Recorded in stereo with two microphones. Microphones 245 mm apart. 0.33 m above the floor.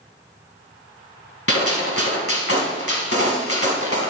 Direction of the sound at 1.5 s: 65° left (ahead or behind).